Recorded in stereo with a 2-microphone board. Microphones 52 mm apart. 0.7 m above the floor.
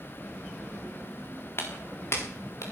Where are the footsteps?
55° left (ahead or behind), 3.5 m; by 2.6 s 65° left (ahead or behind), 3 m.